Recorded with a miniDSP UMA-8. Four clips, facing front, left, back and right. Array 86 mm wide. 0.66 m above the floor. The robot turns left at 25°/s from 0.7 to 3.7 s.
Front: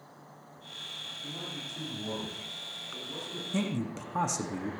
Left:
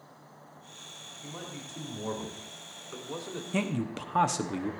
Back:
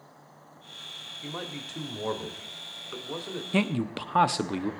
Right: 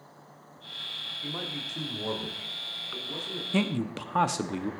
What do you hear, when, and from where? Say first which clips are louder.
1.2 s a man speaking: right 5 dB, back 5 dB; 155° right, 1.6 m; by 3.4 s 150° left, 1.6 m
3.5 s a man speaking: right 3 dB, back 5 dB; 170° right, 0.7 m; by 4.7 s 175° right, 0.7 m